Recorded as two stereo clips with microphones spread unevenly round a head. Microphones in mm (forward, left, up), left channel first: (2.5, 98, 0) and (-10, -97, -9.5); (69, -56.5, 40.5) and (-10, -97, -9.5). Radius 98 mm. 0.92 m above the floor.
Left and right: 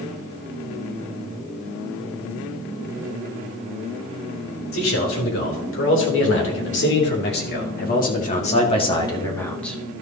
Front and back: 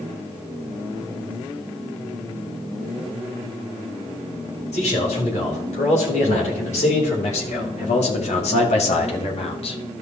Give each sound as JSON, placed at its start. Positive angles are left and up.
{"t": 4.7, "sound": "a man speaking", "azimuth_deg": 65, "distance_m": 4.0}